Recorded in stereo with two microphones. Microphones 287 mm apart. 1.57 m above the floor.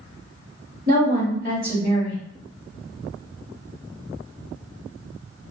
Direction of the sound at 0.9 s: 30° right (ahead or behind).